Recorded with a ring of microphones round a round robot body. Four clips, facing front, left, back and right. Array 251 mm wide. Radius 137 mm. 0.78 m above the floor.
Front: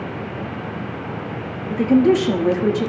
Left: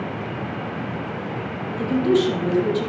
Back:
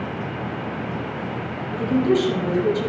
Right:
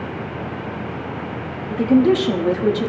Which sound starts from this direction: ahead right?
A woman speaking, at 1.7 s.